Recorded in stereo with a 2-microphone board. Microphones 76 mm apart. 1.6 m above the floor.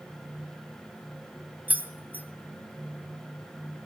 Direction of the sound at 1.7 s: 20° right (ahead or behind).